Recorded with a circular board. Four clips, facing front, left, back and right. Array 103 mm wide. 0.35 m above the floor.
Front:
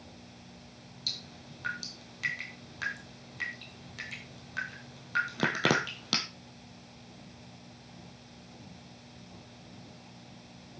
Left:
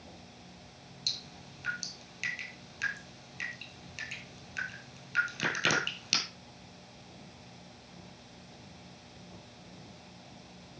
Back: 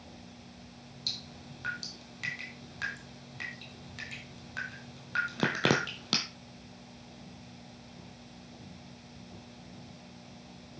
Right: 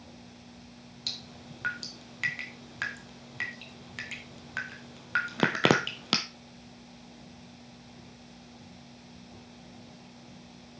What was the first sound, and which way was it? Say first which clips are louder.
Dripping: right 5 dB, back 1 dB; 90° right.